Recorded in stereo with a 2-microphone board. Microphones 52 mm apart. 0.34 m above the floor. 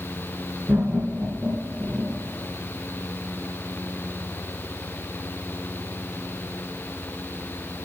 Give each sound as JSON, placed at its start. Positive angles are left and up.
{"t": 0.7, "sound": "laughter", "side_deg": -30, "distance_m": 4.0}